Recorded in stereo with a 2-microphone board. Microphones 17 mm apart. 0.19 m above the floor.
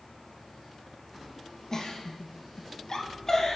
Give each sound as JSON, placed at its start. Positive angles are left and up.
{"t": 1.7, "sound": "a giggle", "side_deg": 30, "distance_m": 2.0}